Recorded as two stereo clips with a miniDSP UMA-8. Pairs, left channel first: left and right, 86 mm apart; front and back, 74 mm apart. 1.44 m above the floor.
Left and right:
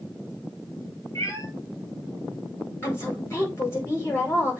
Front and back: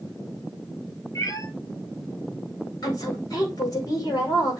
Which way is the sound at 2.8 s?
30° left.